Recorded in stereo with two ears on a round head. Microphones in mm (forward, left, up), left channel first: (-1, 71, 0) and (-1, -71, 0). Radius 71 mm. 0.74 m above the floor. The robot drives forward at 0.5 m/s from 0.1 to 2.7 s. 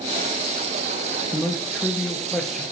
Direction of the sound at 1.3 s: Centre (ahead or behind).